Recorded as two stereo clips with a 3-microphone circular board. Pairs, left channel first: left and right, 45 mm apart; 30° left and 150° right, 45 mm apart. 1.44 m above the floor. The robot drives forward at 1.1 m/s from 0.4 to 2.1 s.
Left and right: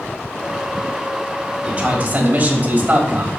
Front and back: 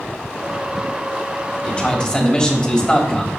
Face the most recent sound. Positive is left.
turn(degrees=-40)